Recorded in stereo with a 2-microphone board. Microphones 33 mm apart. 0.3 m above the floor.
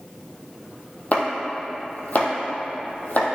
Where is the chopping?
55° left (ahead or behind), 1.9 m.